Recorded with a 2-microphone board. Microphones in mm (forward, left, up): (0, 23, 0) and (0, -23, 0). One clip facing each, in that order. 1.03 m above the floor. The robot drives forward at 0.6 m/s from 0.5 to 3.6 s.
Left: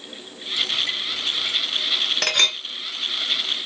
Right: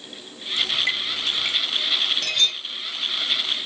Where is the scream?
No scream in this recording.